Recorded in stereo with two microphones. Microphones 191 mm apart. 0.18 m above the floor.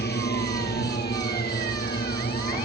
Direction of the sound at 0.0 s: 60° left (ahead or behind).